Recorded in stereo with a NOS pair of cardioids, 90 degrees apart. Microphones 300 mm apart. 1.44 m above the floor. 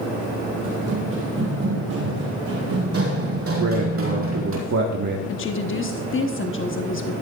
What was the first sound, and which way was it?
Running footsteps, 55° right.